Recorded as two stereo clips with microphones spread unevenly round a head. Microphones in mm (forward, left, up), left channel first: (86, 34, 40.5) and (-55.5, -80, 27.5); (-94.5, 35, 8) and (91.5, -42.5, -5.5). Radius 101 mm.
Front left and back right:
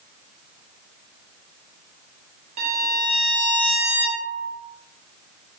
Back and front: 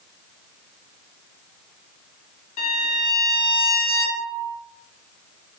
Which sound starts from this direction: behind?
A violin, at 2.6 s.